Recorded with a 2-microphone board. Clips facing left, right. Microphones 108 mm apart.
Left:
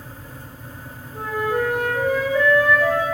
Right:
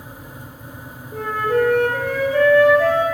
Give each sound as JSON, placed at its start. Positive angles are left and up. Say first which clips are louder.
{"t": 1.1, "sound": "a flute", "louder": "right 4 dB", "side_deg": -75, "distance_m": 4.0}